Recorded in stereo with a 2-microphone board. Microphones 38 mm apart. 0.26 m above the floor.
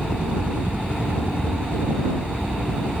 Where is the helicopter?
30° right (ahead or behind); by 3.0 s 45° right (ahead or behind).